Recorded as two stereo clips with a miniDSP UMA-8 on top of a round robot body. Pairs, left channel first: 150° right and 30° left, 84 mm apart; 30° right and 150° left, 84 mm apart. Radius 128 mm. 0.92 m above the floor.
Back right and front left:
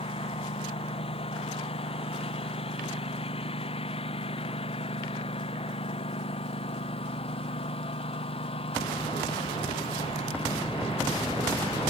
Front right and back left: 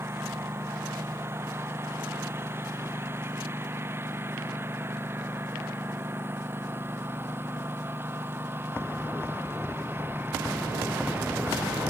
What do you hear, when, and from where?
0.0 s a lawn mower: 145° right; by 11.9 s 140° right